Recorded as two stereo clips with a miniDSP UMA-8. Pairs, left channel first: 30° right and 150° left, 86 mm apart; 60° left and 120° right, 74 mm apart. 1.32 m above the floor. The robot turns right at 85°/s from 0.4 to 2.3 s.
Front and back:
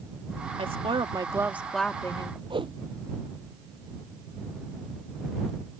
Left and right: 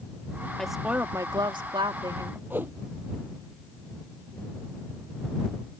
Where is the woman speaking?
140° left; by 2.4 s 75° right.